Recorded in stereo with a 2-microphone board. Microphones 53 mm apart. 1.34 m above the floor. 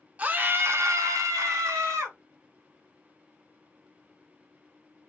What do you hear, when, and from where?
0.2 s a scream: 30° right (ahead or behind), 0.9 m; by 2.2 s 75° right (ahead or behind), 1.5 m